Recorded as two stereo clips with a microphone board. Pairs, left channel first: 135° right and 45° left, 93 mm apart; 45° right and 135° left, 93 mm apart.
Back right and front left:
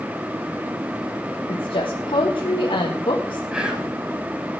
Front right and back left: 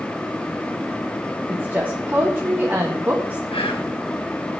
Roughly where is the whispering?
Ahead right.